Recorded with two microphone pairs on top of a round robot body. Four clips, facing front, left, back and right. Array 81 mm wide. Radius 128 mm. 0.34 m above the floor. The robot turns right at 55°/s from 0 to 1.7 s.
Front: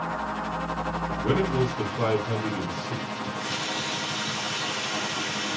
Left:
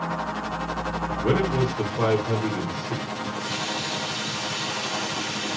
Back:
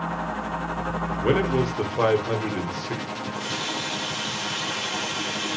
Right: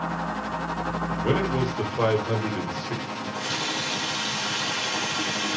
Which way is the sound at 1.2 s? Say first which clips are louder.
Left 2 dB, back 3 dB; 165° left.